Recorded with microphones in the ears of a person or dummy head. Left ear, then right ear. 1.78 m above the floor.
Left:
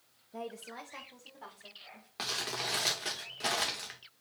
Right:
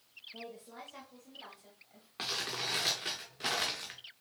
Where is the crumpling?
5° left (ahead or behind), 0.6 m.